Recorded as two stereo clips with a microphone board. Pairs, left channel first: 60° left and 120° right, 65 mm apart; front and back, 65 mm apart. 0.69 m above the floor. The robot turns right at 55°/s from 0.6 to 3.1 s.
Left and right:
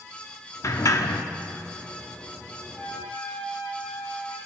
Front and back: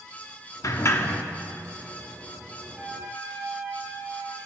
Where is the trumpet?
105° left, 4.5 m; by 4.4 s 125° left, 4.5 m.